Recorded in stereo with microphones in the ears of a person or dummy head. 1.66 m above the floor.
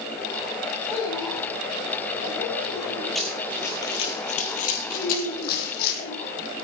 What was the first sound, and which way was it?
A child speaking, 40° left (ahead or behind).